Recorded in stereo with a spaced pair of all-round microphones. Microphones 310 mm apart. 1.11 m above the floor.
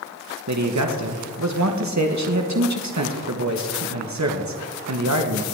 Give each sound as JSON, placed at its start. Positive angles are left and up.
{"t": 0.5, "sound": "a man speaking", "side_deg": -60, "distance_m": 1.1}